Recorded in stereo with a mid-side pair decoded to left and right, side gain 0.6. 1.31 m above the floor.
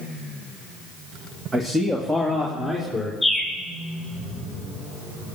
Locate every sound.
1.5 s a man speaking: 20° right, 1.8 m; by 3.1 s straight ahead, 4 m
3.2 s a bird: 5° left, 7 m